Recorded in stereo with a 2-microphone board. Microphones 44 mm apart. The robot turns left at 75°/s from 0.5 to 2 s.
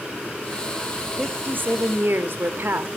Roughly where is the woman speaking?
Ahead right.